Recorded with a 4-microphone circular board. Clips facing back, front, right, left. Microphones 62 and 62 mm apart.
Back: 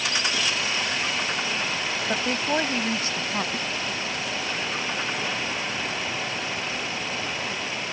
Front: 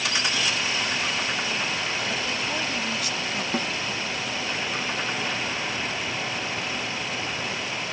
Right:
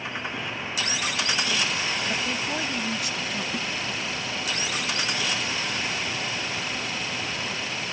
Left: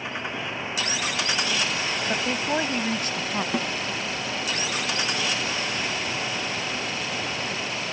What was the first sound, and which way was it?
A woman speaking, 145° left.